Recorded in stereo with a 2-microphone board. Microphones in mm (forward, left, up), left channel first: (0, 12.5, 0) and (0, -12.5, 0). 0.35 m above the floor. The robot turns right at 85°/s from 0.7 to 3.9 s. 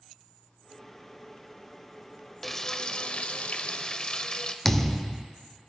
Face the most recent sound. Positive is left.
turn(degrees=15)  # may be behind; listen again after turning